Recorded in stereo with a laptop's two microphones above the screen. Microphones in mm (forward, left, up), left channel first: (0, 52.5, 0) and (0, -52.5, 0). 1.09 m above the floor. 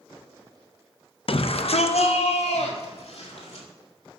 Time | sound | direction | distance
1.3 | a shout | 60° left (ahead or behind) | 0.5 m